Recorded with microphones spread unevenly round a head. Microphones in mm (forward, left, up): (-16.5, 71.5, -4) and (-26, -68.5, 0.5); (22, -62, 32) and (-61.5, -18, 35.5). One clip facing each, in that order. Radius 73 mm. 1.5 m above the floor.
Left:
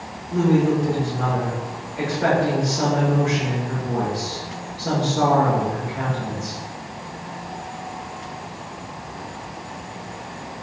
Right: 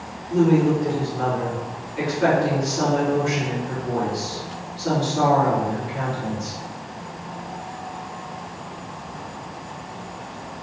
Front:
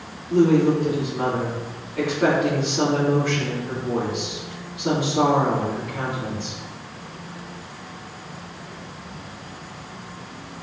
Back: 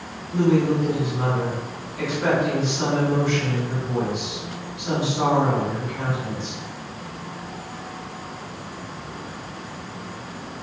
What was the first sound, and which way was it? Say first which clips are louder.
A woman speaking: right 1 dB, front 3 dB; 45° right.